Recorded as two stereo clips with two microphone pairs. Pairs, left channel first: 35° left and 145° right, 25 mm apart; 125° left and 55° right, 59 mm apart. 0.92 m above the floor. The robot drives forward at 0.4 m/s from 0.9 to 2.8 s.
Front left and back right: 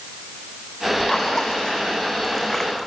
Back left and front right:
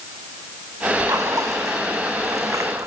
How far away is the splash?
About 5 m.